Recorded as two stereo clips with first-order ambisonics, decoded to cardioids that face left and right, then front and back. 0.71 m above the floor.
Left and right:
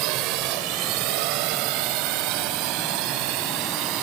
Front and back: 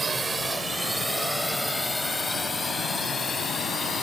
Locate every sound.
0.0 s a drone: 105° right; by 4.0 s 70° right